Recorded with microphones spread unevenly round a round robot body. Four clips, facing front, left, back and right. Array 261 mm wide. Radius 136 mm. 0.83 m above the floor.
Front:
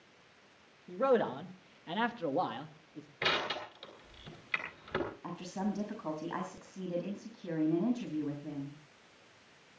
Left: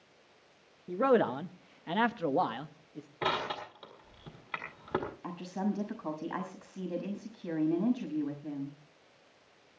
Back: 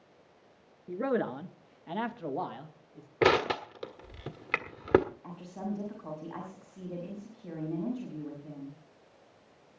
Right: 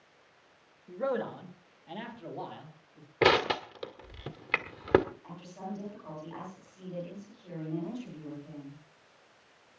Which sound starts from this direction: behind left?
A man speaking, at 0.9 s.